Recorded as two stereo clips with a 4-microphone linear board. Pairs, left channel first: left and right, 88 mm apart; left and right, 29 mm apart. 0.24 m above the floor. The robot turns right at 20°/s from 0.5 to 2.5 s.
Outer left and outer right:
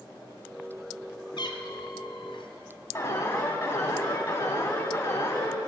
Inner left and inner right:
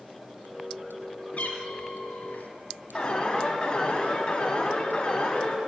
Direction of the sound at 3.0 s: 30° left (ahead or behind).